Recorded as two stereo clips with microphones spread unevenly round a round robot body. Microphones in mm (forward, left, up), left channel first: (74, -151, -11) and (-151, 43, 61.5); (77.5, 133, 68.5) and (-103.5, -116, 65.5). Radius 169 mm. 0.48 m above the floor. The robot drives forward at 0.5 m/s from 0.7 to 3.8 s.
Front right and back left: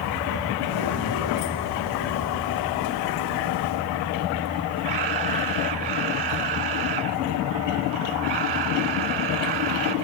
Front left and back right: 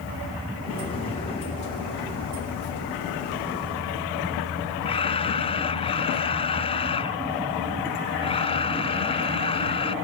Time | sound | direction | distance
4.8 | a camera shutter | 125° left | ?